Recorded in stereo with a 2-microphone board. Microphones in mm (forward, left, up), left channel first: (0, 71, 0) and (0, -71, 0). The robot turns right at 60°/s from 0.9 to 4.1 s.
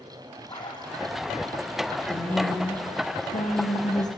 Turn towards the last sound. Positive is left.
turn(degrees=120)